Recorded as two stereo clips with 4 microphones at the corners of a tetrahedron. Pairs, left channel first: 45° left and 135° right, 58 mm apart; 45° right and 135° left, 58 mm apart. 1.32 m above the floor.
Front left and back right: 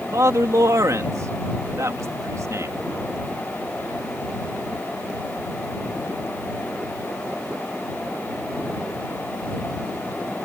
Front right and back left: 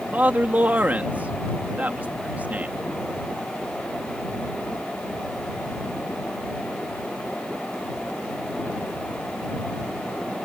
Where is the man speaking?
165° right.